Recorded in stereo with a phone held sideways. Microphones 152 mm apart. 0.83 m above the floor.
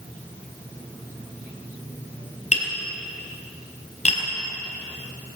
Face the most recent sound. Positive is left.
turn(degrees=50)  # may be behind; listen again after turning